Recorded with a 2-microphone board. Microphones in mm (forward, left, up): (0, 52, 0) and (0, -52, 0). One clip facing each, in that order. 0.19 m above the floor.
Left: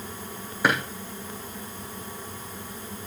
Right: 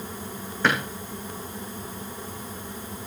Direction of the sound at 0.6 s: 10° left (ahead or behind).